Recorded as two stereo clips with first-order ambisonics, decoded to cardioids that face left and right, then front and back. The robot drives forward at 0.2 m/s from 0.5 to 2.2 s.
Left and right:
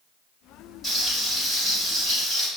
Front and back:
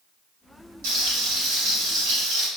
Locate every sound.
0.8 s frying: 175° left, 1.7 m